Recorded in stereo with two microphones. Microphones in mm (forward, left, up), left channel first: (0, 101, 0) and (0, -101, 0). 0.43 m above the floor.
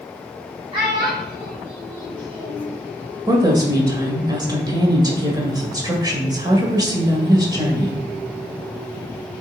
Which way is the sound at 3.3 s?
20° right (ahead or behind).